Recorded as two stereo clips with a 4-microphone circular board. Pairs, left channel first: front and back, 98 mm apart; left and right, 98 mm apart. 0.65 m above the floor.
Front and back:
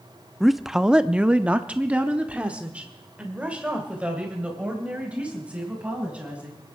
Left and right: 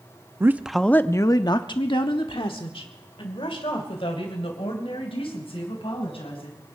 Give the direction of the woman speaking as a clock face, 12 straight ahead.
3 o'clock.